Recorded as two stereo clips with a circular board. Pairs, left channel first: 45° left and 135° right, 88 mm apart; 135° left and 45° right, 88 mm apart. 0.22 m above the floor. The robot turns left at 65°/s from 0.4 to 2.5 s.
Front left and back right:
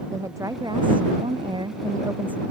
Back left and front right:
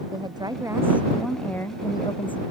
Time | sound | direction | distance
0.1 | a woman speaking | 80° right | ?